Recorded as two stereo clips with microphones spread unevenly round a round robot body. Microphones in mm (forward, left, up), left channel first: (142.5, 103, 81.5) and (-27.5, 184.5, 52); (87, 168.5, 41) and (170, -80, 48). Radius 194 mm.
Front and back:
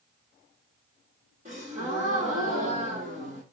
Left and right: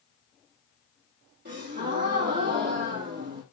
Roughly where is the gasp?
Behind right.